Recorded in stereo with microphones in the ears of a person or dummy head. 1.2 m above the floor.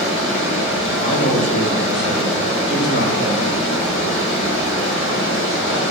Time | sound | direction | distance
0.0 | running water | 60° left (ahead or behind) | 2.0 m
1.0 | a man speaking | 25° left (ahead or behind) | 0.6 m